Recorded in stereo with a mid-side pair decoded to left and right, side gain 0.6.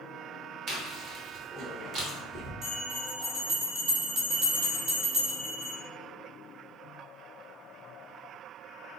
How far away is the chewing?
About 1.0 m.